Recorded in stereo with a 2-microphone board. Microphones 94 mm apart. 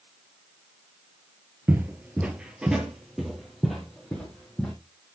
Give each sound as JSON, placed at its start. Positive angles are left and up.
{"t": 1.7, "sound": "footsteps", "side_deg": -20, "distance_m": 0.9}